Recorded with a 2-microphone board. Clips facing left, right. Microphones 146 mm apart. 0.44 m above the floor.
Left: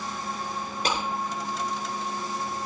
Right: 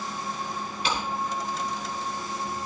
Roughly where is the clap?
Left.